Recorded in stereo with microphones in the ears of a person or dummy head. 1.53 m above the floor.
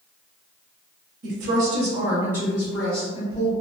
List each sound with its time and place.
1.2 s a woman speaking: 60° right (ahead or behind), 0.7 m; by 3.5 s 15° left (ahead or behind), 1.3 m